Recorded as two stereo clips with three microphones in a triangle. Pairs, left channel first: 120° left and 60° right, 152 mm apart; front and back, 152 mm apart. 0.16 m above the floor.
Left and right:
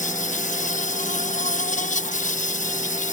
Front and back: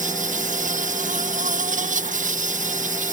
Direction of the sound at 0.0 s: 150° left.